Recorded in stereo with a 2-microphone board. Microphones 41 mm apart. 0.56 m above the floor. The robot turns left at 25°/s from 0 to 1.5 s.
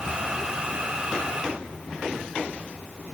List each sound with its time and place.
Only background noise.